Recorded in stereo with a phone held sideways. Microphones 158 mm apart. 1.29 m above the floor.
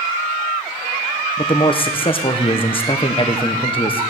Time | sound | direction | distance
1.4 | a man speaking | 35° left (ahead or behind) | 0.8 m